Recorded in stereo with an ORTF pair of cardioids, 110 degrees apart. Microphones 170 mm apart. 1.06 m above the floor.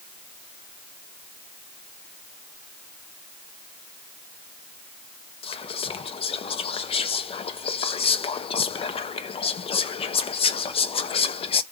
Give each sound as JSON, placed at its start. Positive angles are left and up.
{"t": 5.4, "sound": "whispering", "azimuth_deg": 35, "distance_m": 0.7}